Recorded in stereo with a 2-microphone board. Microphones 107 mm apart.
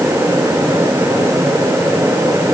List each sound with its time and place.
Only background noise.